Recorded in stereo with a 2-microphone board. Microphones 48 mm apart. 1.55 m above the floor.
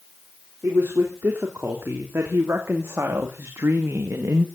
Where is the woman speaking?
50° right (ahead or behind), 3.5 m; by 4.5 s 65° right (ahead or behind), 1.7 m.